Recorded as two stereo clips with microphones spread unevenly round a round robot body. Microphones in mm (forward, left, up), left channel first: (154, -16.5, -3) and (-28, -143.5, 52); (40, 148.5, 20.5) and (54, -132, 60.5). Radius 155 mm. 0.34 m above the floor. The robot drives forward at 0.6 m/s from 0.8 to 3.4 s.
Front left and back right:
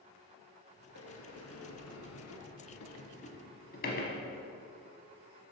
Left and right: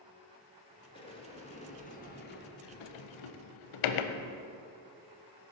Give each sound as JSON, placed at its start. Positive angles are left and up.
{"t": 0.9, "sound": "a sliding door", "azimuth_deg": 20, "distance_m": 1.5}